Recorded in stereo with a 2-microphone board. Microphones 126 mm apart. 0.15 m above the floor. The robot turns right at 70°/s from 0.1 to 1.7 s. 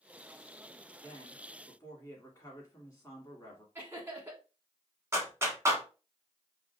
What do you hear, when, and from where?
1.0 s a woman speaking: 15° left (ahead or behind), 1.3 m; by 3.6 s 25° left (ahead or behind), 1.3 m
3.8 s laughter: 20° right (ahead or behind), 1.0 m
5.1 s a clap: 20° right (ahead or behind), 0.9 m